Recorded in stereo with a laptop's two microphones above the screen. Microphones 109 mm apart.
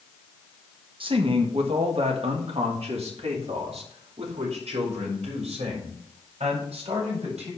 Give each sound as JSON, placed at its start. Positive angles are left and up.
{"t": 1.0, "sound": "a man speaking", "side_deg": -50, "distance_m": 1.1}